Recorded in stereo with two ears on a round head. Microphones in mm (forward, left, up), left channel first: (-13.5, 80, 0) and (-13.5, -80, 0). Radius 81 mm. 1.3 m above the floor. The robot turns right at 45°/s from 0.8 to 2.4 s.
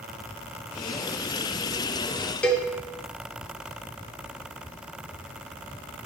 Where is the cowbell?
10° left (ahead or behind), 1.2 m.